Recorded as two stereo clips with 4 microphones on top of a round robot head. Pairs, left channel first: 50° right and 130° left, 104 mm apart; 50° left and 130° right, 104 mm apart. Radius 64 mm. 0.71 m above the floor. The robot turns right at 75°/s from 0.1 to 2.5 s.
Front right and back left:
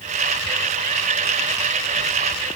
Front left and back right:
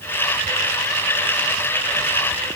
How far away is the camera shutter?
I don't hear a camera shutter.